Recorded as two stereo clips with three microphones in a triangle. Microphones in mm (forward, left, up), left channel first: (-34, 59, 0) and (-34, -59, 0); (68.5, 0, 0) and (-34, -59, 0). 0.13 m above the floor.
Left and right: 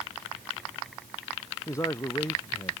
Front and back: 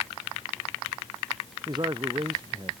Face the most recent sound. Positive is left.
turn(degrees=155)